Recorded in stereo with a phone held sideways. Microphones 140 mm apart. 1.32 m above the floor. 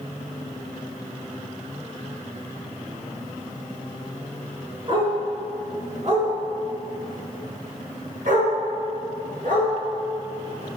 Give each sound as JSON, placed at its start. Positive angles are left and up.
{"t": 4.9, "sound": "a dog barking", "side_deg": -40, "distance_m": 4.0}